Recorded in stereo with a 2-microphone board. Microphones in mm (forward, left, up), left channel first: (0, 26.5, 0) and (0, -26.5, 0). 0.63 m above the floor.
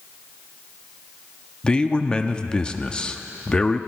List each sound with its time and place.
1.6 s a man speaking: 20° left (ahead or behind), 0.6 m